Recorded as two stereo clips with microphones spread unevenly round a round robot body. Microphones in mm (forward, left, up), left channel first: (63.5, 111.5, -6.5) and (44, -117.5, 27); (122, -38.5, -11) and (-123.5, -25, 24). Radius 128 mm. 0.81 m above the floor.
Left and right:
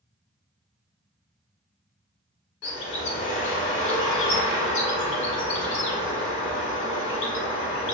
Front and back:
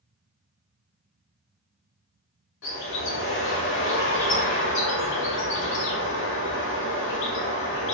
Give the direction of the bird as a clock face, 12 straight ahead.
10 o'clock.